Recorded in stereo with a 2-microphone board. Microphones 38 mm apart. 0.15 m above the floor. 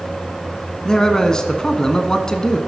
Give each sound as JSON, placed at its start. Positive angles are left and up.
{"t": 0.8, "sound": "a man speaking", "side_deg": 20, "distance_m": 1.1}